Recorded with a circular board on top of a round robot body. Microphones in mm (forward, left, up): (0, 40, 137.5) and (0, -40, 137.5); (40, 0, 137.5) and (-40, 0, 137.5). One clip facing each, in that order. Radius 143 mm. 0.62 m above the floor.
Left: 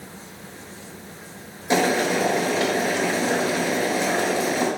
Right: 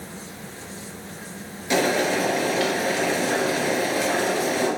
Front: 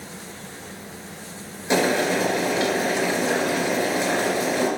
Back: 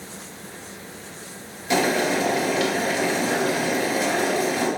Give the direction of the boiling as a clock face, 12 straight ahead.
10 o'clock.